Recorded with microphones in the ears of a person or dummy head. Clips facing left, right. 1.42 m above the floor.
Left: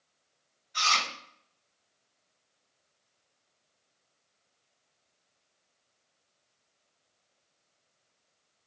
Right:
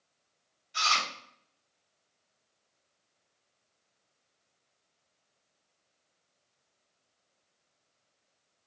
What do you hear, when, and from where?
0.7 s chewing: 35° right (ahead or behind), 1.8 m